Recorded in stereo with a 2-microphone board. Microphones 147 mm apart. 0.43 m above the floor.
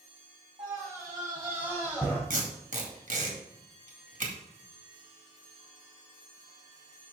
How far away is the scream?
About 3 m.